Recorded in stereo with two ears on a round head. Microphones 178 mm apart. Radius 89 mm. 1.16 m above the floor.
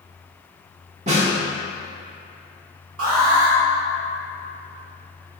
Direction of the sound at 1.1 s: 35° right (ahead or behind).